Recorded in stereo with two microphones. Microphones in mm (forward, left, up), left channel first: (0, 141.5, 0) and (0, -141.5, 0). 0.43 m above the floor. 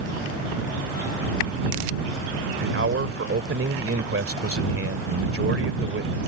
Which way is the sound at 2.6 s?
55° right (ahead or behind).